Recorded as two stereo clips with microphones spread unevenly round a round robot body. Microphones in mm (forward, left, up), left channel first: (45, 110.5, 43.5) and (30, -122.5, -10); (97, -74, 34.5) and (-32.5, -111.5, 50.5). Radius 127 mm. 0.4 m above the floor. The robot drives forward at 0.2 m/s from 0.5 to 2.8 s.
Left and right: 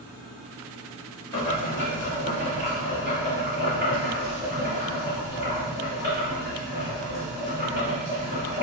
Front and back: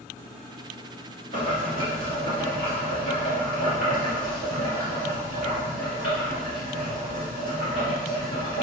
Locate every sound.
1.3 s boiling: 145° left, 0.8 m; by 8.6 s 155° left, 1.0 m